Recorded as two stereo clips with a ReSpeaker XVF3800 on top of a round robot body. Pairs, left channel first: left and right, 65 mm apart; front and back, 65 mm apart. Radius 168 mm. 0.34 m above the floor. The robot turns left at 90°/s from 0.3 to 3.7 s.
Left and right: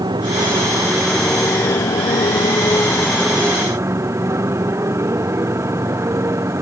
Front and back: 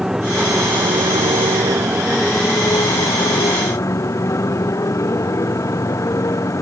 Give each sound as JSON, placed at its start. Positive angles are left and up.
{"t": 0.0, "sound": "a motorcycle", "azimuth_deg": -95}